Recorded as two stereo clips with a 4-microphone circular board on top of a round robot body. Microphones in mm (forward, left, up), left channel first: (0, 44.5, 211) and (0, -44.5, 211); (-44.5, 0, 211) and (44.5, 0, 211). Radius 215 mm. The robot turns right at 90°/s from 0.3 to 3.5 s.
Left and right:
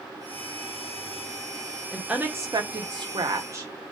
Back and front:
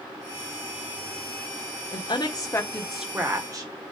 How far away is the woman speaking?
About 1.6 m.